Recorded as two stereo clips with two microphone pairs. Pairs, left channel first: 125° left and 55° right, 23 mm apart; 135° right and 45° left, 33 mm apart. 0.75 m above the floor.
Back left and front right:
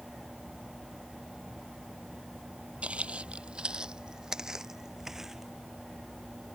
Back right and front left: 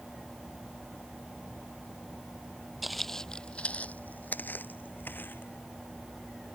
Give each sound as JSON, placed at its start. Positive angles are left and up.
{"t": 2.8, "sound": "footsteps", "azimuth_deg": -45}